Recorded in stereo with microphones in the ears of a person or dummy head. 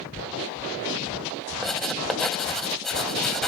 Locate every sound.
1.6 s writing: 5° left (ahead or behind)